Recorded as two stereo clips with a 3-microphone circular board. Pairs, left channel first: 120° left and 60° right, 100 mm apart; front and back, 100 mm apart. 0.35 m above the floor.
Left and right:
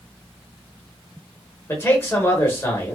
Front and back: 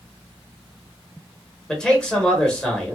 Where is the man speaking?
75° left, 1.0 m.